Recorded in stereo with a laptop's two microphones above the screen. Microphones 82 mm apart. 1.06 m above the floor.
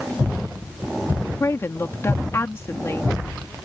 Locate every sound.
1.4 s a woman speaking: 35° left (ahead or behind)